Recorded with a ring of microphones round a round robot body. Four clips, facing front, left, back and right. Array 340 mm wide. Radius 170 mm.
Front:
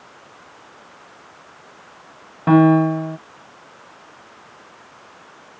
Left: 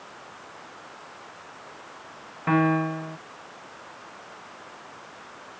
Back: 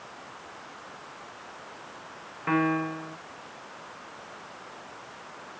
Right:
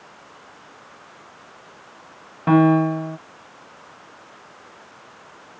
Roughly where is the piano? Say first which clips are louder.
Right 7 dB, front 13 dB; ahead right.